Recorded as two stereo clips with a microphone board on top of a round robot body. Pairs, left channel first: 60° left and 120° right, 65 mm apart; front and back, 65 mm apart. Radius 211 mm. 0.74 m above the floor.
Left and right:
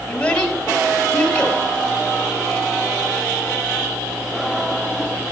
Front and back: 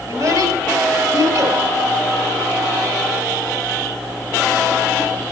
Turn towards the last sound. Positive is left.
turn(degrees=135)